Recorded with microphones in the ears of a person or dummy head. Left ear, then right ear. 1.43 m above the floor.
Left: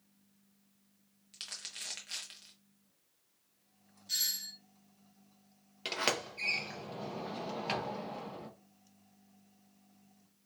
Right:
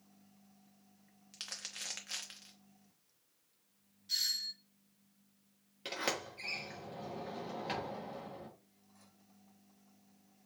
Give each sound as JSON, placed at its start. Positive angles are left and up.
{"t": 1.3, "sound": "crumpling", "side_deg": -20, "distance_m": 0.8}
{"t": 4.1, "sound": "a doorbell", "side_deg": 10, "distance_m": 1.2}
{"t": 5.8, "sound": "a sliding door", "side_deg": 20, "distance_m": 0.9}